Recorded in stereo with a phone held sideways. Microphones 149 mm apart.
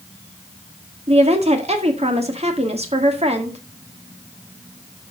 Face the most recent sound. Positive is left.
turn(degrees=-45)  # may be behind; listen again after turning